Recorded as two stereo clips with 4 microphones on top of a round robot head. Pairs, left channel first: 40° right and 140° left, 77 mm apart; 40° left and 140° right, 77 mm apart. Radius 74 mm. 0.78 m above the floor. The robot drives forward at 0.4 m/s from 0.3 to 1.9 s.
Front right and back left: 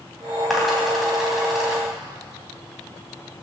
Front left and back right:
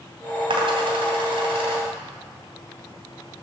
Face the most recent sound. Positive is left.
turn(degrees=-135)